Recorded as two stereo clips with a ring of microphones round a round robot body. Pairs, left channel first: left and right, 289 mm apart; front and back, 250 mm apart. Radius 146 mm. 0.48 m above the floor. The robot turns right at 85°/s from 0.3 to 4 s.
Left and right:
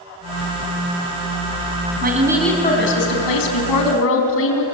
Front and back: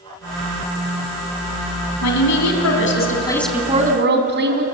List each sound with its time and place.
2.0 s a woman speaking: 35° right, 4.5 m; by 4.6 s 135° left, 4.5 m